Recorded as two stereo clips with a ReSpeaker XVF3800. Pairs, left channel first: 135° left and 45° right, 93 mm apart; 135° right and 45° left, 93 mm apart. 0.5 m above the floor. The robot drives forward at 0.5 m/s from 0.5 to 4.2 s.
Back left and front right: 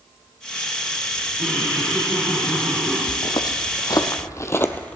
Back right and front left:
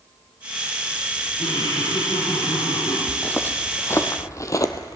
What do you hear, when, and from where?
1.4 s laughter: 125° right, 3 m; by 3.0 s 135° right, 3.5 m
3.1 s footsteps: 150° left, 0.9 m; by 5.0 s 150° right, 0.6 m